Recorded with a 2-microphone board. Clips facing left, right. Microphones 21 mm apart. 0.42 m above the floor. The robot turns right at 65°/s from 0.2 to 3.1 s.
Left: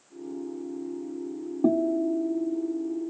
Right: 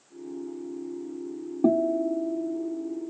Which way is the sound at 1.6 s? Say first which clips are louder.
Right 1 dB; 5° right (ahead or behind).